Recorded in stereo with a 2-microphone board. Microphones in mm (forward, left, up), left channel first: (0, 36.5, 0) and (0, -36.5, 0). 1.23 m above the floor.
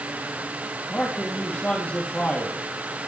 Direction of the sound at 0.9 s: 25° left (ahead or behind).